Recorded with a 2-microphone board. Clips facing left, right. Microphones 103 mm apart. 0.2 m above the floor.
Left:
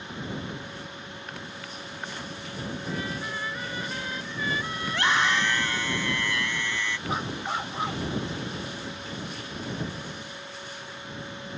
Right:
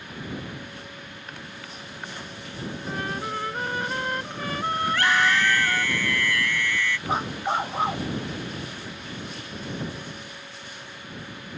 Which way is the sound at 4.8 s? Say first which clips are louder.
Right 2 dB; 25° left (ahead or behind).